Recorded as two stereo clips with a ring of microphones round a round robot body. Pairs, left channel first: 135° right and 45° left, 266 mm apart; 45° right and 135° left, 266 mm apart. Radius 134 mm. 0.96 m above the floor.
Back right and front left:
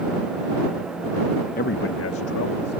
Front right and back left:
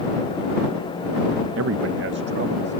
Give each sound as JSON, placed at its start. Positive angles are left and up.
{"t": 1.6, "sound": "a man speaking", "azimuth_deg": 170}